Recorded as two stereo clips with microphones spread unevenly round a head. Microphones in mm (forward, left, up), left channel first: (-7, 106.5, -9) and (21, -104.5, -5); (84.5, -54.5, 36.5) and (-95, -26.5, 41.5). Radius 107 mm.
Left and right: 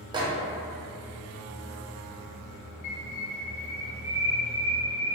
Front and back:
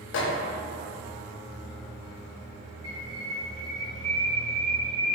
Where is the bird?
95° left, 1.4 m.